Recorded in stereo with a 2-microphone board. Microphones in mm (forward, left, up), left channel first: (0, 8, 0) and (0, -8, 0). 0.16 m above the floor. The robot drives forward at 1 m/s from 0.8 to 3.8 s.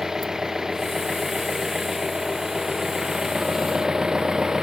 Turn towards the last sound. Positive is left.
turn(degrees=-30)  # may be behind; listen again after turning